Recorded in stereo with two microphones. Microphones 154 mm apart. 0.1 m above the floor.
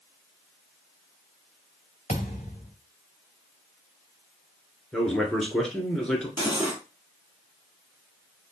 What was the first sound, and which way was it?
A thud, 50° left (ahead or behind).